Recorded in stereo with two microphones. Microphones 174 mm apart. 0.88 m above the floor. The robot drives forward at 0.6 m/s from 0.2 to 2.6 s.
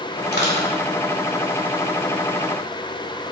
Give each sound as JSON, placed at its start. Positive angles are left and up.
{"t": 0.3, "sound": "crushing", "side_deg": 70, "distance_m": 2.5}